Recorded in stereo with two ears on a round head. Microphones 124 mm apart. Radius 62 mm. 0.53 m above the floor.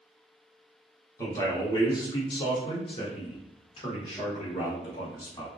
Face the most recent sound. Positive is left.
turn(degrees=35)  # may be behind; listen again after turning